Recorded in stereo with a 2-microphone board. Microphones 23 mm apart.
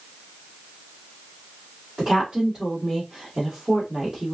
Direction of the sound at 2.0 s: 5° right (ahead or behind).